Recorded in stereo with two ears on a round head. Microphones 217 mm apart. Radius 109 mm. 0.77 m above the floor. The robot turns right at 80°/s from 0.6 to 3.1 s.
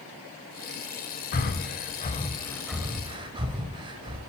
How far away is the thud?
I don't hear a thud.